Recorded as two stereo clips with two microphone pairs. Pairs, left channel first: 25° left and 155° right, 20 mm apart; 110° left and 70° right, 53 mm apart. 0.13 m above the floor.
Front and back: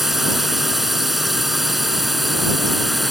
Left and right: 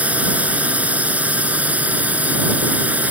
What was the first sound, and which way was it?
A drone, 90° right.